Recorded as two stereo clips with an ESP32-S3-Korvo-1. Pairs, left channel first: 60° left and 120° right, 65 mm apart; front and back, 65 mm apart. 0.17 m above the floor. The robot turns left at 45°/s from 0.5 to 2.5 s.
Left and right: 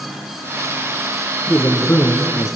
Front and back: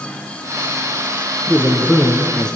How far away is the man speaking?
About 2.5 m.